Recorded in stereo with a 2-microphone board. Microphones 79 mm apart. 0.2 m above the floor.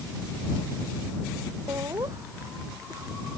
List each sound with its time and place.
1.7 s laughter: 50° right (ahead or behind)